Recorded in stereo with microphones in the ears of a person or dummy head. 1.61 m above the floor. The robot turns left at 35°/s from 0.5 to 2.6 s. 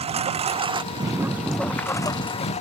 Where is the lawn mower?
145° right; by 2.6 s 145° left.